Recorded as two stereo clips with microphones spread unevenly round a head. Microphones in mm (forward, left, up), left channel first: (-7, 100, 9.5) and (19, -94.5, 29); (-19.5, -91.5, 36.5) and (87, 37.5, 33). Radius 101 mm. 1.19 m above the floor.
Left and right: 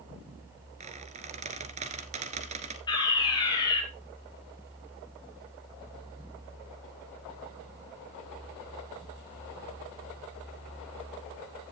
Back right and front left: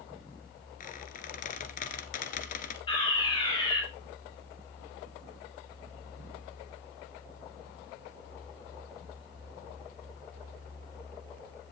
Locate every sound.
0.8 s a squeak: 120° right, 1.6 m
2.9 s a fire alarm: 165° left, 6 m